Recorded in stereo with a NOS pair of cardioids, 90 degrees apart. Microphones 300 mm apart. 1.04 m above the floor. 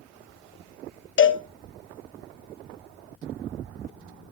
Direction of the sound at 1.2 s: 45° left.